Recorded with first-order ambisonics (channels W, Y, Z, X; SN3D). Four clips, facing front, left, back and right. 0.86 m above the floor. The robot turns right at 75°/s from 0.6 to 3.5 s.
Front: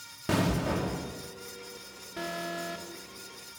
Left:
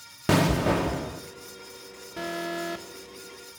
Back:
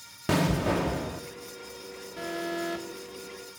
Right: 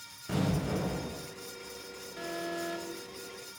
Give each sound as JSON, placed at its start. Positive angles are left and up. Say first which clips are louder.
{"t": 0.3, "sound": "an explosion", "louder": "left 9 dB, back 3 dB", "azimuth_deg": 100, "distance_m": 1.1}
{"t": 2.2, "sound": "an alarm", "louder": "left 5 dB, back 2 dB", "azimuth_deg": 65, "distance_m": 1.5}